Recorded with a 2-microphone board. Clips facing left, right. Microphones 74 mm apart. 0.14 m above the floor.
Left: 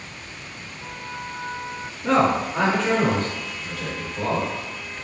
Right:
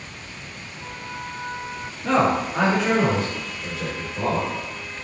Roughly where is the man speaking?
Centre.